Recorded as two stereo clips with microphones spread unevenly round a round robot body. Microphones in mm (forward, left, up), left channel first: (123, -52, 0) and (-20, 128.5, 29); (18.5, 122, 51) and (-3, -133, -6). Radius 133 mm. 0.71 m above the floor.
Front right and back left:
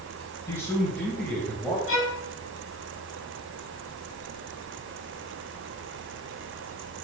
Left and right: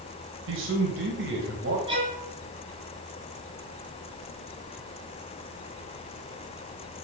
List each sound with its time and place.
0.5 s a man speaking: 130° right, 3 m; by 1.8 s 140° right, 3.5 m
1.9 s a violin: 20° right, 4.5 m